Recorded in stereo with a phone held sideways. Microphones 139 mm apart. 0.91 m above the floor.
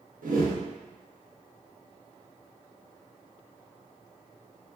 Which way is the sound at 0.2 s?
75° right (ahead or behind).